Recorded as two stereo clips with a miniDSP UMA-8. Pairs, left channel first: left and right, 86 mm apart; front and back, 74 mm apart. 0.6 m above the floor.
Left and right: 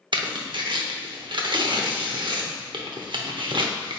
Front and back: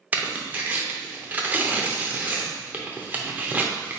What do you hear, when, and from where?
0.1 s tearing paper: 115° right, 0.7 m